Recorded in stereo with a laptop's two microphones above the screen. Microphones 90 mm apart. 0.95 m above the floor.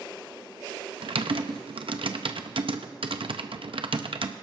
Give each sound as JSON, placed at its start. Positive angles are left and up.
{"t": 1.0, "sound": "typing on a keyboard", "side_deg": -75, "distance_m": 0.7}